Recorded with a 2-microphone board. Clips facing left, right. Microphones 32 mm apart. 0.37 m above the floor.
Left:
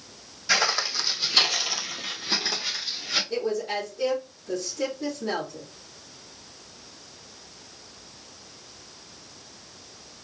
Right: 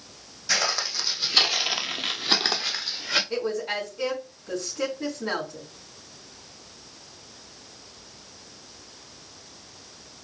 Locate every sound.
0.5 s footsteps: 25° left (ahead or behind), 1.6 m; by 3.2 s 55° right (ahead or behind), 1.7 m
3.3 s a woman speaking: 50° right (ahead or behind), 3.5 m